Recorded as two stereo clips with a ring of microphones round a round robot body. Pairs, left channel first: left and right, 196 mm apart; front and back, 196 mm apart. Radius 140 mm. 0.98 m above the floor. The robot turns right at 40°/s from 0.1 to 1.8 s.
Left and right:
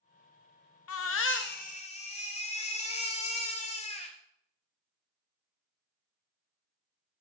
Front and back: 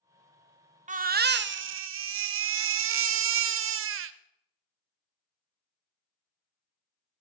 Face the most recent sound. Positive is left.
turn(degrees=160)